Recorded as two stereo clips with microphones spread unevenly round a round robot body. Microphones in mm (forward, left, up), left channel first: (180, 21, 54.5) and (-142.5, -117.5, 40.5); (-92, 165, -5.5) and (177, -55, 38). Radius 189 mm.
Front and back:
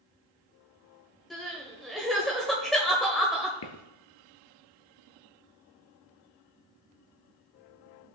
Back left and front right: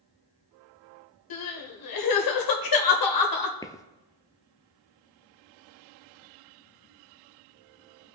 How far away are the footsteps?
About 0.8 m.